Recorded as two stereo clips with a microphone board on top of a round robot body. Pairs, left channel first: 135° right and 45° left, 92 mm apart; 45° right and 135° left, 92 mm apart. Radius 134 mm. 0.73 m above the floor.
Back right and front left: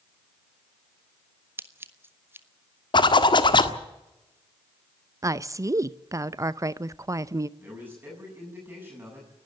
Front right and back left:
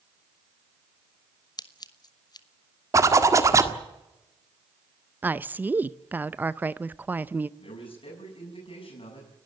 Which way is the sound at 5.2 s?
75° left.